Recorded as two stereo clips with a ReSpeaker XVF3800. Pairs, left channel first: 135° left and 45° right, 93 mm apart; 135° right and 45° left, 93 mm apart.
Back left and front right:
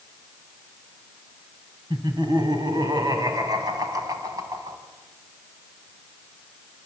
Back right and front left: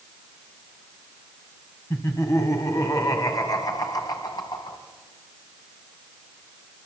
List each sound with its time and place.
1.9 s laughter: 80° right, 4.5 m; by 4.8 s 100° right, 4.5 m